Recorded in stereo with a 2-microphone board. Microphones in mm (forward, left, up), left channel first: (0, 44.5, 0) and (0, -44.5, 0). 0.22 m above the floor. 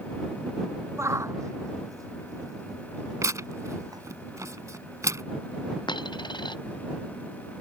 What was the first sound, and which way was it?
A shout, 30° right (ahead or behind).